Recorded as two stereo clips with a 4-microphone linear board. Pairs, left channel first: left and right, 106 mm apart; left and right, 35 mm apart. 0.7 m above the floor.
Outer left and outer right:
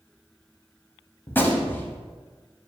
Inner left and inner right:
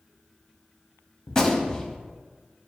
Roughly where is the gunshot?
Centre.